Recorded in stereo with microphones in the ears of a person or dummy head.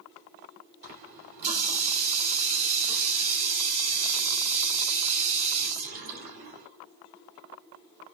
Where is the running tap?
50° right (ahead or behind), 3 m.